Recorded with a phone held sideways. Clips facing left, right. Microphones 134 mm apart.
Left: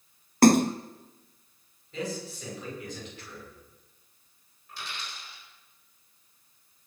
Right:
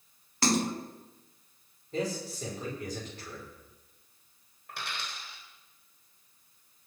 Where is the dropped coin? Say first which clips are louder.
Right 2 dB; 70° right (ahead or behind), 4 m.